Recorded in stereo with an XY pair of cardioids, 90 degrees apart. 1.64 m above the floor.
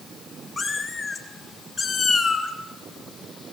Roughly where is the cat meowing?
Ahead left.